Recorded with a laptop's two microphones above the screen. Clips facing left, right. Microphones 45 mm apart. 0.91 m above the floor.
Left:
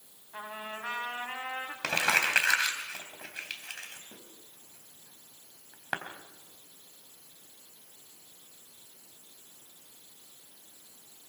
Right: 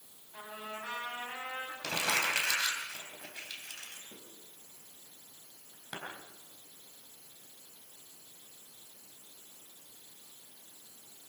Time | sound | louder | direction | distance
0.3 | a trumpet | left 3 dB | 45° left (ahead or behind) | 3.5 m
1.8 | crumpling | left 5 dB | 80° left | 3.5 m